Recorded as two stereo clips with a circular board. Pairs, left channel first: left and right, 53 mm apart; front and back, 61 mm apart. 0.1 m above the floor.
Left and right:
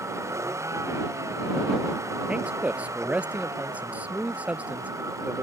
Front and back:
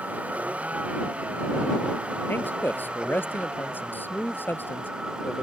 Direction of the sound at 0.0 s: 110° right.